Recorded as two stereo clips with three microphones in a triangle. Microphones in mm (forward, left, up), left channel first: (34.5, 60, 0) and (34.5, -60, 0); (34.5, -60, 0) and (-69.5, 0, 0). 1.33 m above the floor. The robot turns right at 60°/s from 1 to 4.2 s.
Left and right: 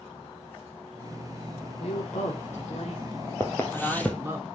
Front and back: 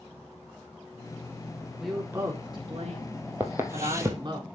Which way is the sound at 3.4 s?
110° left.